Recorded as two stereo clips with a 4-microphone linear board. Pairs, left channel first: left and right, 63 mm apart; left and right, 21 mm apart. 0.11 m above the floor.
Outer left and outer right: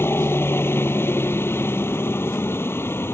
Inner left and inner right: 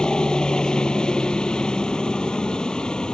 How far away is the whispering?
No whispering in this recording.